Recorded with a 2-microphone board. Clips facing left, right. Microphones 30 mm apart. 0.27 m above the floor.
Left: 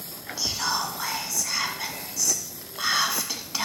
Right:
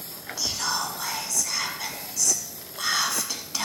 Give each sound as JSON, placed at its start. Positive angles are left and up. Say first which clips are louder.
{"t": 0.4, "sound": "whispering", "louder": "left 1 dB", "side_deg": 15, "distance_m": 2.0}